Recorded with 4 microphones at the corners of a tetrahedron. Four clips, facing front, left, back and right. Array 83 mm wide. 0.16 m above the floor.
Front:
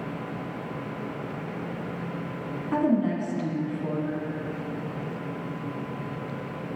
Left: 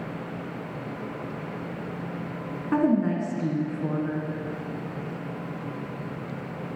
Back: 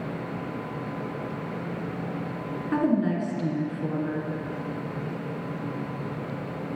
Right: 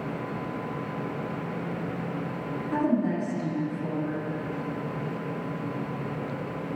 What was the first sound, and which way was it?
A woman speaking, 100° left.